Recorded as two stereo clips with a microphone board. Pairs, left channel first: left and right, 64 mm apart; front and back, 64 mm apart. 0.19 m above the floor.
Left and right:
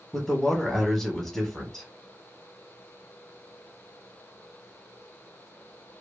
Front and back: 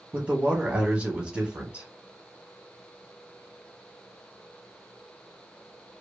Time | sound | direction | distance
0.1 | a man speaking | 165° left | 1.0 m